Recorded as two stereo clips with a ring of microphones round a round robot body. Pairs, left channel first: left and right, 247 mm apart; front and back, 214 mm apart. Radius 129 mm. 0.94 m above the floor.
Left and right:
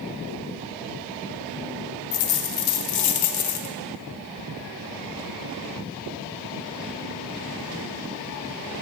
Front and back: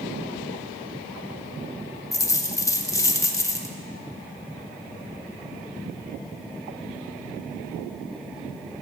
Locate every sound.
2.1 s a dropped coin: 75° left, 0.9 m